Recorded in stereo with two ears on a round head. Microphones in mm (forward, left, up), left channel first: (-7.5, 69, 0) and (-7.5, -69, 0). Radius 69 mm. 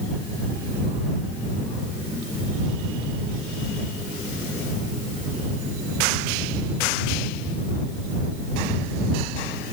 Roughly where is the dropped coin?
I don't hear a dropped coin.